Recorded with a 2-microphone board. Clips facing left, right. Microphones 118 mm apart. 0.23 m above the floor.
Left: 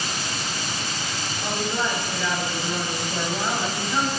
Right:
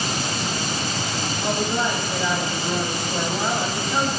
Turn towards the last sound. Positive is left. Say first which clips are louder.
# right 3 dB
turn(degrees=-20)  # may be behind; listen again after turning